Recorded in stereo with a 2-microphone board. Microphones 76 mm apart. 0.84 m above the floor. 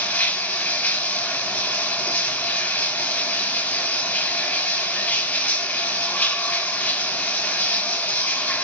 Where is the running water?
20° left (ahead or behind), 4 m.